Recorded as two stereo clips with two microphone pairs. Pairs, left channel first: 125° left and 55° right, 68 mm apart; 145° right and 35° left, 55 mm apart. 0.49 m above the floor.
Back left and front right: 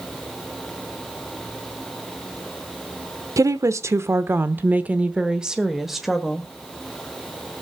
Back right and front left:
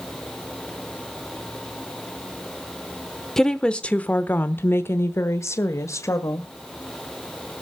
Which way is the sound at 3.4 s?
60° right.